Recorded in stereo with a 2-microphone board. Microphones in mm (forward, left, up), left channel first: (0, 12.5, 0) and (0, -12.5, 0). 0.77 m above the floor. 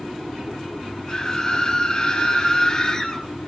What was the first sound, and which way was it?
A scream, 30° left (ahead or behind).